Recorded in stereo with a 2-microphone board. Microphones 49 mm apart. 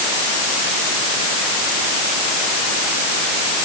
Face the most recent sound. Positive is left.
No sound to turn to.